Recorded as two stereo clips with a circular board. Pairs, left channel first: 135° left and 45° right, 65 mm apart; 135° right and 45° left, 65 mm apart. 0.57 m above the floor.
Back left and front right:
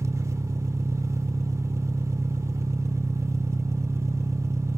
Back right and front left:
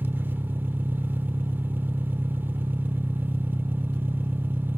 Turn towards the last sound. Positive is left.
turn(degrees=-10)